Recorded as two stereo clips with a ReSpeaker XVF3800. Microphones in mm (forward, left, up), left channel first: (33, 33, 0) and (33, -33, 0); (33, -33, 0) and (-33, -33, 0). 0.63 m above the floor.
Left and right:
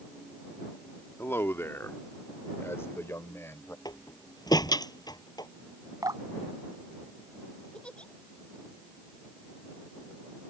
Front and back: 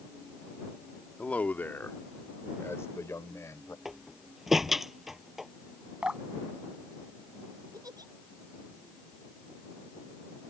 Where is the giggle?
165° left.